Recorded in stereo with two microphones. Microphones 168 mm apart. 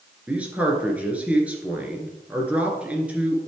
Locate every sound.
0.3 s a man speaking: 10° right (ahead or behind), 1.9 m